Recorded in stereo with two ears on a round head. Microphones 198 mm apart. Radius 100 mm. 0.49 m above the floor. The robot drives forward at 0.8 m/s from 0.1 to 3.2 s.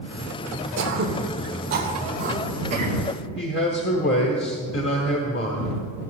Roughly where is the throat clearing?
Right.